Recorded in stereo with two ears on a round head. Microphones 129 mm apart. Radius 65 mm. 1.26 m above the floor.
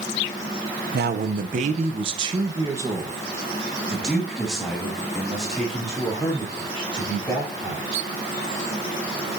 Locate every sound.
0.9 s a man speaking: 75° right (ahead or behind), 0.8 m; by 8.0 s 10° left (ahead or behind), 4 m